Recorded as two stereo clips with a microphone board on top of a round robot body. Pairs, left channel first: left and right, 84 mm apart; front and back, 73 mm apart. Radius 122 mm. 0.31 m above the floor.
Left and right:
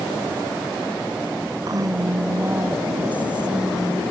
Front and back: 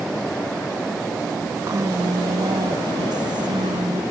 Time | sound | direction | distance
1.7 | a woman speaking | 130° right | ?